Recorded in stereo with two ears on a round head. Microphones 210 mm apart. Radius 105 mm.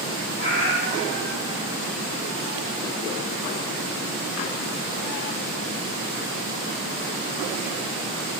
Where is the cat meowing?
65° left (ahead or behind), 4 m; by 1.7 s 50° left (ahead or behind), 4 m.